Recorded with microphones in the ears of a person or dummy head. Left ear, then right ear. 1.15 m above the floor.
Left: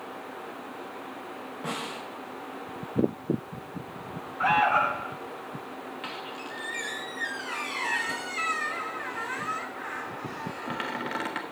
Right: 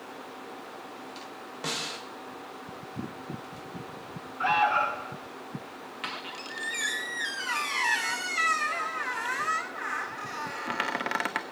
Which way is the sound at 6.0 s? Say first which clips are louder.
Right 3 dB; 35° right (ahead or behind).